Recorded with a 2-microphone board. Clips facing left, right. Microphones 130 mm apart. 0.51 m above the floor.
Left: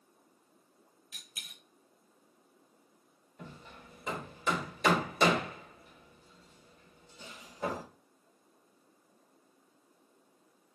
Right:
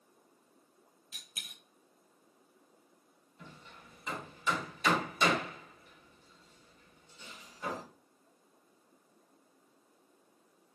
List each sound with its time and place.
1.1 s a dropped coin: 25° right (ahead or behind), 1.3 m
3.4 s hammering: 65° left (ahead or behind), 1.9 m